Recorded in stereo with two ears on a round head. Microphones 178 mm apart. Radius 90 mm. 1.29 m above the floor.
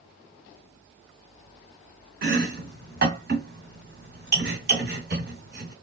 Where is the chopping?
55° right (ahead or behind), 1.7 m.